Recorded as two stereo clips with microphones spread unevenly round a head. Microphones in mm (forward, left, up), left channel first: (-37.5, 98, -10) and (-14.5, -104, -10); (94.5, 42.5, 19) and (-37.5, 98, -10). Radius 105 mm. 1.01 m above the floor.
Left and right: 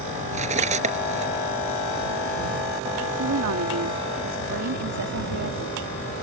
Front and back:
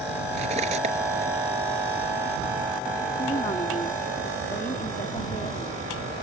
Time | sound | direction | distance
0.3 | cutlery clinking | 140° right | ?
3.2 | a woman speaking | 85° right | ?